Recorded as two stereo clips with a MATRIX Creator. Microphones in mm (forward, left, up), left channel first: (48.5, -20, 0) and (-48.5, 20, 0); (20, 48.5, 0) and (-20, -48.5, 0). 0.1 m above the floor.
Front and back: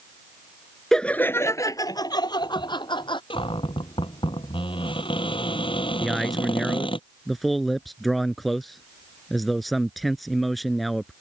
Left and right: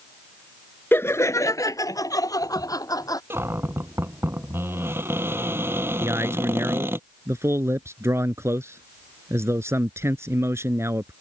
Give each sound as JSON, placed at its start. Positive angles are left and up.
{"t": 0.9, "sound": "laughter", "azimuth_deg": 55}
{"t": 3.3, "sound": "a cupboard door", "azimuth_deg": -50}
{"t": 6.0, "sound": "a man speaking", "azimuth_deg": -110}